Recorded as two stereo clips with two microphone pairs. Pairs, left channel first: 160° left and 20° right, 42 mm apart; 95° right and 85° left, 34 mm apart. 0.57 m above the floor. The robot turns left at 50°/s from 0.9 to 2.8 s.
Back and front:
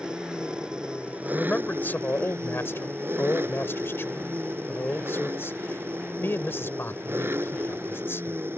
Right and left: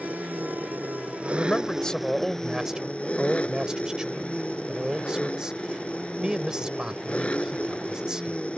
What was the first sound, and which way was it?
An engine running, 50° left.